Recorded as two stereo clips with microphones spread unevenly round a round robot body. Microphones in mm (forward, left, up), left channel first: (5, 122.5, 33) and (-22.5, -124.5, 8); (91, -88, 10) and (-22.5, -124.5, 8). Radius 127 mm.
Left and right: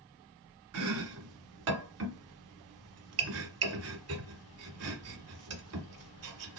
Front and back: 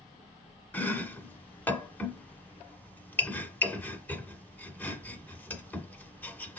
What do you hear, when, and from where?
0.7 s chopping: 60° right, 1.1 m